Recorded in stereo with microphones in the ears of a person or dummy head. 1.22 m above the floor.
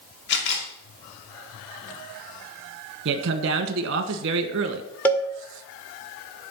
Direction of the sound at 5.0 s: 10° left (ahead or behind).